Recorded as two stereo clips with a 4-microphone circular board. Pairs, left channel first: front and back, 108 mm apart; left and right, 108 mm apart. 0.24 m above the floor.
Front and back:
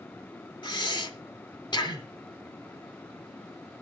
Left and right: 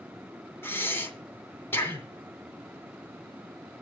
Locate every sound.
0.6 s breathing: 25° left, 2 m